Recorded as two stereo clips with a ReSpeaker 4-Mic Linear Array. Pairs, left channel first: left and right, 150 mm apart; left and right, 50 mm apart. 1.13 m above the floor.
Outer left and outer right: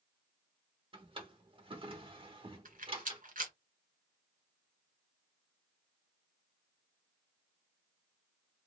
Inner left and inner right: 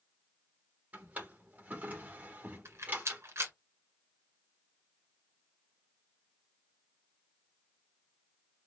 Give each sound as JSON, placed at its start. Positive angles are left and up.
{"t": 0.9, "sound": "a drawer", "side_deg": -35, "distance_m": 1.1}
{"t": 2.6, "sound": "a rattle", "side_deg": -65, "distance_m": 1.5}